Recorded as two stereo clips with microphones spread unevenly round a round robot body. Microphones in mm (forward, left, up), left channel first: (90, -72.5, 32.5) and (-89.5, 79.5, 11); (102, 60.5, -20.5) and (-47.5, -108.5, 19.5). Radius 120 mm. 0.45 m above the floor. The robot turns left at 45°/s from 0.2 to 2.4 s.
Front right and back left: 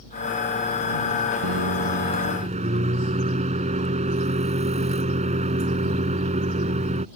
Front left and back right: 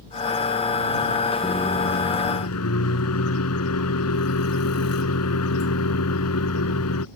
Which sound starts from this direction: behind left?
A microwave, at 1.4 s.